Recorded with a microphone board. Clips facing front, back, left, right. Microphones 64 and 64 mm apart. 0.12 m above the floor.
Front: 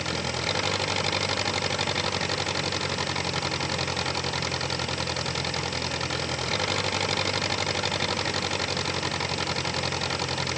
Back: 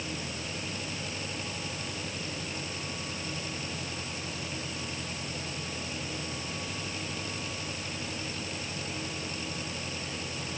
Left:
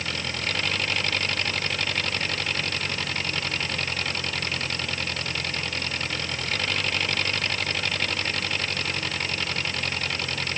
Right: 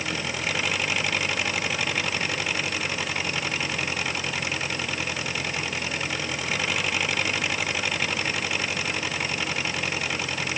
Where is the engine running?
10° right.